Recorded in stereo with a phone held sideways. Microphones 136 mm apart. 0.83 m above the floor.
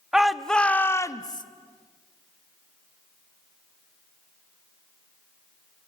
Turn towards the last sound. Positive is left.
turn(degrees=35)  # may be behind; listen again after turning